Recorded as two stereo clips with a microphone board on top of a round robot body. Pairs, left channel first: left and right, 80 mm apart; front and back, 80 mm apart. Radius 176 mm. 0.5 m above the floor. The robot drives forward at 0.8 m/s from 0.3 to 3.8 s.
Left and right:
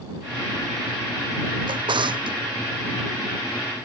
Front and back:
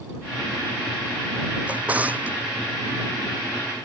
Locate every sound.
1.7 s a drawer: 105° right